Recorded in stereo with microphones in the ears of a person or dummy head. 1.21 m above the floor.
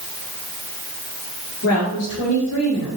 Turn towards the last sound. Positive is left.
turn(degrees=85)